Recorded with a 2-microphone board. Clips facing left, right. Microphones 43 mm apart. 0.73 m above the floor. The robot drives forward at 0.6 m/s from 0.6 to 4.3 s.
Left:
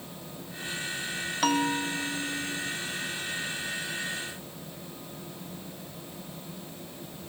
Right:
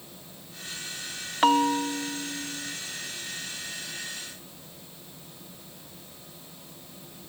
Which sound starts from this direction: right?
A bell, at 1.4 s.